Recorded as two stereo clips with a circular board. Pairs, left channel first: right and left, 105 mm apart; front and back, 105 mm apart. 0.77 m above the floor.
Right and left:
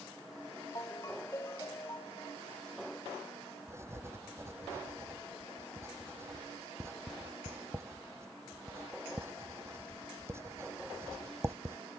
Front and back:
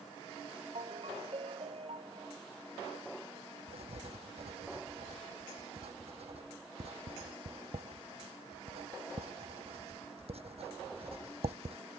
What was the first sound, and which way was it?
A ringtone, 150° right.